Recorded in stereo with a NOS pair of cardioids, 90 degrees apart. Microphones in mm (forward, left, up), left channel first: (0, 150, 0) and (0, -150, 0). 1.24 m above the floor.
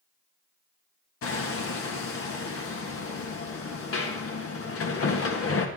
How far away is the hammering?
About 1.5 m.